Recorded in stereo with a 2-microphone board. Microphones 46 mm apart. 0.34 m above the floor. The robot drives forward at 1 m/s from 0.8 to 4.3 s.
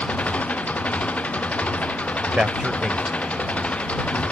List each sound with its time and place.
0.0 s an engine running: 30° left (ahead or behind)
2.3 s a man speaking: 25° right (ahead or behind); by 4.2 s 10° right (ahead or behind)